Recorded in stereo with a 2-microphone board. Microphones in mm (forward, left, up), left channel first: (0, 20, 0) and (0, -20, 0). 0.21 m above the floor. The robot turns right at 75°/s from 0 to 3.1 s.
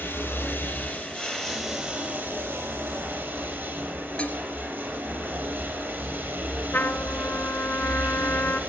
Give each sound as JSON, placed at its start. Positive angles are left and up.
{"t": 0.0, "sound": "running water", "azimuth_deg": 60, "distance_m": 5.0}
{"t": 4.2, "sound": "dishes clattering", "side_deg": 30, "distance_m": 2.5}
{"t": 6.7, "sound": "a trumpet", "side_deg": 60, "distance_m": 1.3}